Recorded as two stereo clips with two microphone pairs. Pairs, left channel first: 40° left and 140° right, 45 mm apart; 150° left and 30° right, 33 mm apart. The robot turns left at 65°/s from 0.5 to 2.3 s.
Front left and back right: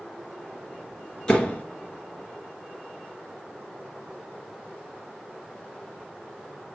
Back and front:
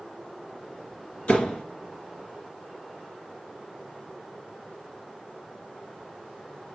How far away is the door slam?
About 2.5 m.